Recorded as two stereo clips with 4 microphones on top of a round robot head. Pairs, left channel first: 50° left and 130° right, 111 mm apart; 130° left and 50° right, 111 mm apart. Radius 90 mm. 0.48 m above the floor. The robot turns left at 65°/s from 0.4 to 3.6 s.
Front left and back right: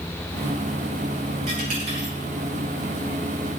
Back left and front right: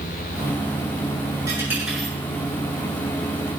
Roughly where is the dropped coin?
Right.